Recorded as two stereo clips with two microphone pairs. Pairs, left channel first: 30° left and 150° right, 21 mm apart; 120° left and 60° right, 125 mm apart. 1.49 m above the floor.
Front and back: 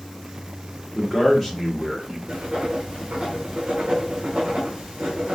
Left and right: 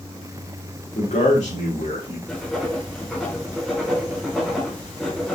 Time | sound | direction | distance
0.9 | a man speaking | 120° left | 1.4 m
2.3 | writing | 155° right | 2.5 m